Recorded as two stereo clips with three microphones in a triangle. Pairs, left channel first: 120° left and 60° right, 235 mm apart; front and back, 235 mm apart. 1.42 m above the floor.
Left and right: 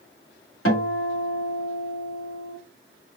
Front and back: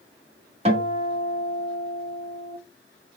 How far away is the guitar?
About 1.7 m.